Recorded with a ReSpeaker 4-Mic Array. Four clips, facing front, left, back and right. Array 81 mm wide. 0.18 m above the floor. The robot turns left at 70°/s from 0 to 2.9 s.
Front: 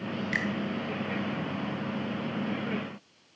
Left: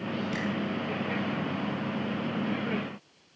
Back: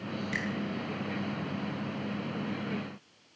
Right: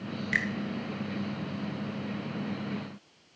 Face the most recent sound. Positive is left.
turn(degrees=110)